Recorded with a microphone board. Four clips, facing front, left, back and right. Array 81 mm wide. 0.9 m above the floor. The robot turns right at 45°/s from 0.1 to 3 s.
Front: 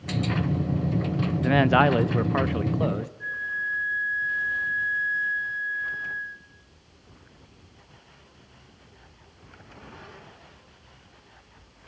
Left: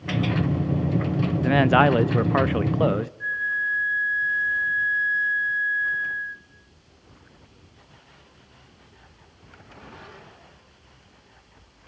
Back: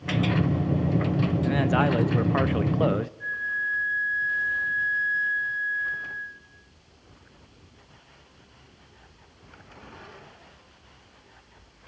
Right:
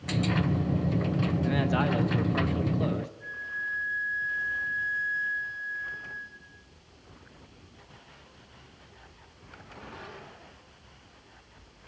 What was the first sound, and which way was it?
A man speaking, 50° left.